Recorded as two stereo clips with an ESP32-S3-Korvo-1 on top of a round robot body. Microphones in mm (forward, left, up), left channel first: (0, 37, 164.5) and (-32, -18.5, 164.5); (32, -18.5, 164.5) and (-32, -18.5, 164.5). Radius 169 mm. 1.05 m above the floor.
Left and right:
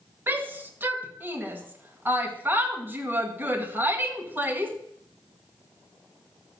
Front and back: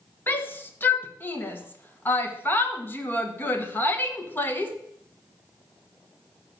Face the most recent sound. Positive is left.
turn(degrees=-60)